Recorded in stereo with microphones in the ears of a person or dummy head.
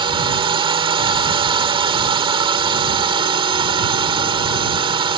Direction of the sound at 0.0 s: 25° right (ahead or behind).